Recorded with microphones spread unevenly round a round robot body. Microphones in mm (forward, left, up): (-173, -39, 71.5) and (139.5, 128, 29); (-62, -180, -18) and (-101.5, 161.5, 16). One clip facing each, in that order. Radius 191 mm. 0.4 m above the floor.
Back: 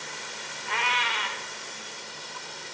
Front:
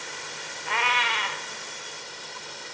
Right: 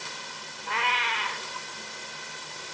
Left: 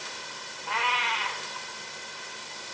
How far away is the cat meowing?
About 3.5 m.